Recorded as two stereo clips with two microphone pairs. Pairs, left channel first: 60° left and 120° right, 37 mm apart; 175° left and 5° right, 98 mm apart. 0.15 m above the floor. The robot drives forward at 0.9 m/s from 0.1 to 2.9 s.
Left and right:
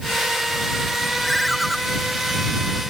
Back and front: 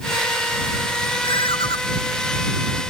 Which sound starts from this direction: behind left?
A ringtone, at 1.2 s.